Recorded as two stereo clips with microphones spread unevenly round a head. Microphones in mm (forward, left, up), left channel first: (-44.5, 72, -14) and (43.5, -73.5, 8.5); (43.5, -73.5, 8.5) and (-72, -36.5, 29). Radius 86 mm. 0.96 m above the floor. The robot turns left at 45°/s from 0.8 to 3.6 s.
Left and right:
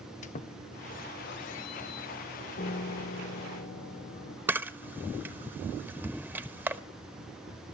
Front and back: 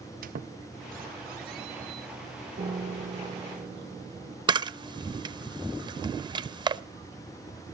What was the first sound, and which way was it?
A squeak, 170° left.